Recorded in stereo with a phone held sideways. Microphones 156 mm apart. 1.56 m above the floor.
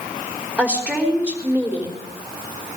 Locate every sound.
0.6 s a woman speaking: 5° right (ahead or behind), 4 m